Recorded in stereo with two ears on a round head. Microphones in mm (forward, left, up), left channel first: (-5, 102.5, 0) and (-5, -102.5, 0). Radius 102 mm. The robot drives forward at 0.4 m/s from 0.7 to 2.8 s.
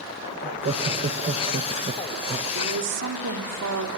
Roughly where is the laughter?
Right.